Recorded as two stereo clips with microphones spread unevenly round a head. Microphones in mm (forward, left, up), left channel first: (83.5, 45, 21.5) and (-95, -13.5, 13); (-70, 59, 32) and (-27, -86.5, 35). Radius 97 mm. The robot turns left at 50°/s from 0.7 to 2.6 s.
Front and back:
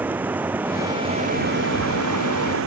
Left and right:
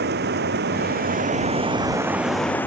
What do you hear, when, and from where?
0.0 s running water: 80° right; by 2.7 s 175° right